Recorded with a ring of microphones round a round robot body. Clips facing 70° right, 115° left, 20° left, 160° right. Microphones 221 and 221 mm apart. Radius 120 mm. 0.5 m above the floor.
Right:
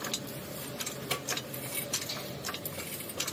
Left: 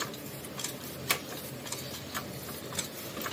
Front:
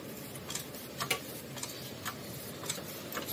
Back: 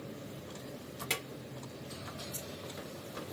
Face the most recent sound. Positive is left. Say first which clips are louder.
# right 1 dB, front 1 dB
turn(degrees=105)